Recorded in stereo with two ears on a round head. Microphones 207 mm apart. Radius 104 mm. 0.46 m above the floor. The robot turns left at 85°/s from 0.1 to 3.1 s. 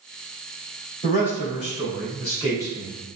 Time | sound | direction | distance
1.0 | a man speaking | 150° left | 1.9 m